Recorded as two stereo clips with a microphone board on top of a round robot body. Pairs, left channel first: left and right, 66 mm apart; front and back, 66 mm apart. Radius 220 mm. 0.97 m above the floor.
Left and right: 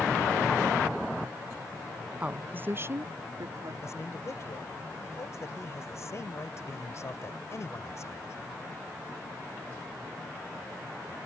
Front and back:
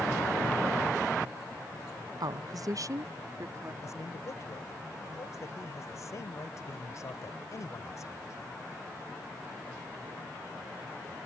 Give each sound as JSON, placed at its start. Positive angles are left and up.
{"t": 2.2, "sound": "a woman speaking", "azimuth_deg": -165}
{"t": 3.8, "sound": "a man speaking", "azimuth_deg": 45}